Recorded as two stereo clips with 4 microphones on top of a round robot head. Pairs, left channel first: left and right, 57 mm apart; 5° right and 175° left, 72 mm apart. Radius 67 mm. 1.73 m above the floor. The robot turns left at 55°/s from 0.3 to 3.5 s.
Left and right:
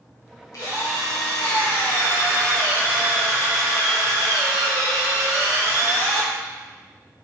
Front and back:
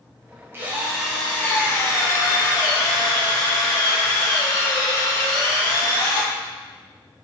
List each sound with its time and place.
0.5 s a drill: 115° left, 2 m; by 6.3 s 45° right, 2 m